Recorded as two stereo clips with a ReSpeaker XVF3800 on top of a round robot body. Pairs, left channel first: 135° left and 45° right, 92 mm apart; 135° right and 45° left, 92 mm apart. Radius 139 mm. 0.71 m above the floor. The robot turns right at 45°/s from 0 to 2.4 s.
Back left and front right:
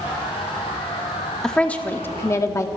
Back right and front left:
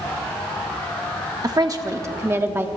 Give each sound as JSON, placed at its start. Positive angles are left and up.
{"t": 1.4, "sound": "a woman speaking", "azimuth_deg": 55, "distance_m": 1.2}